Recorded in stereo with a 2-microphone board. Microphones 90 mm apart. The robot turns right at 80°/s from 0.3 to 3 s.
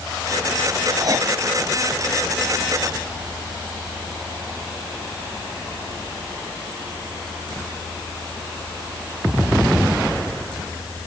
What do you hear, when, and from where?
1.0 s writing: 50° right (ahead or behind); by 1.3 s 30° right (ahead or behind)